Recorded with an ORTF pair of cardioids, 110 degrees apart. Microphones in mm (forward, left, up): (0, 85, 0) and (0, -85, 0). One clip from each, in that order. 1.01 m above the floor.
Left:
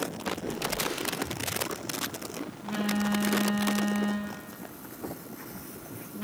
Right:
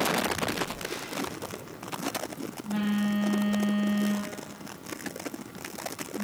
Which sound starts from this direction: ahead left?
A phone buzzing, at 0.5 s.